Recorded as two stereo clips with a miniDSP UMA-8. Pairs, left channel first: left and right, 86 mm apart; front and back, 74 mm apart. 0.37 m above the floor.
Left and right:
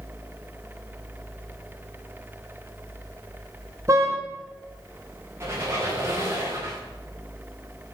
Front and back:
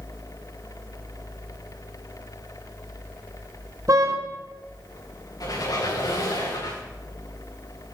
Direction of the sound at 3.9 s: 140° right.